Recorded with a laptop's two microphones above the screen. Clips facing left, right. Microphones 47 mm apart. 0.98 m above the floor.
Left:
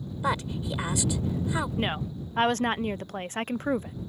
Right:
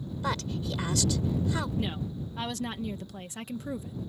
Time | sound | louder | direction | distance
0.2 | a woman speaking | left 4 dB | 20° left (ahead or behind) | ?
1.8 | a woman speaking | left 3 dB | 45° left (ahead or behind) | ?